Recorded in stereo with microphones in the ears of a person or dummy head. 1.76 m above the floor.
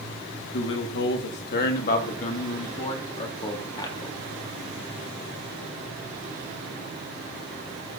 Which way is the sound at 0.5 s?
65° left (ahead or behind).